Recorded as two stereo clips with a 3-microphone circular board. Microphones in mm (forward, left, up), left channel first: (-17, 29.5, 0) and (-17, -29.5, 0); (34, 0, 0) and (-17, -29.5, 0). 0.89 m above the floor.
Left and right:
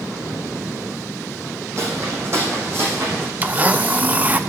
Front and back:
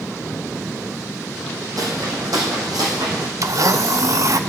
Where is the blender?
155° right, 0.6 m.